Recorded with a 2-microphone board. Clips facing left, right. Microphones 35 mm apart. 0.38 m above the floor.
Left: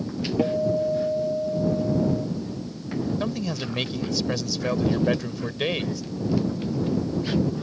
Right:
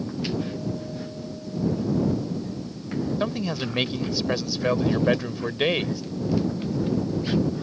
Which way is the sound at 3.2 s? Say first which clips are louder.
Right 1 dB; 15° right (ahead or behind).